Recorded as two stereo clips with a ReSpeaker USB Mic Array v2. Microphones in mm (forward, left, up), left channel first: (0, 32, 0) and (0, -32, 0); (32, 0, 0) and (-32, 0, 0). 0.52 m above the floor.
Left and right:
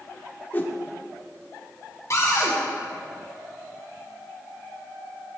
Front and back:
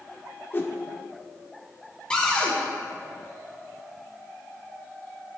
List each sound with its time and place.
0.5 s a whoosh: 40° left, 0.8 m
2.1 s a cupboard door: 70° left, 1.9 m